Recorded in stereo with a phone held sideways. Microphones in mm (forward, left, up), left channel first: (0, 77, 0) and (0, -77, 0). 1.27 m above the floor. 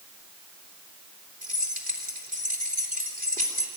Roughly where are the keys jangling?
Right.